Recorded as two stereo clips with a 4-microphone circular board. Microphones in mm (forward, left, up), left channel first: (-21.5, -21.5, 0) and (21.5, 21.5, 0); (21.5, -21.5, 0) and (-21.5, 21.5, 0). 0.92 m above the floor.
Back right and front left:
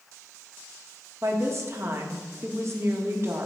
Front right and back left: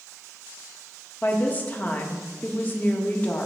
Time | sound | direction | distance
1.2 | a woman speaking | 15° left | 0.9 m